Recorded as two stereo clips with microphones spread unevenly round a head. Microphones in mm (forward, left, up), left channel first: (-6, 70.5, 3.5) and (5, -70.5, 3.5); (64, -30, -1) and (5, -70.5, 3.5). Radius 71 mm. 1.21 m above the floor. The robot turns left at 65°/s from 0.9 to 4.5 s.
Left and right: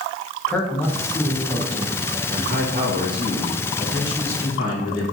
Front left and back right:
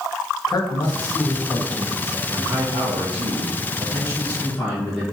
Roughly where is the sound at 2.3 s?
Right.